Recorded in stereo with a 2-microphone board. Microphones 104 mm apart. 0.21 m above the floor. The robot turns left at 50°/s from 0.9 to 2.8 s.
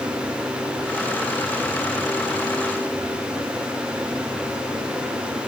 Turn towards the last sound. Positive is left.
No sound to turn to.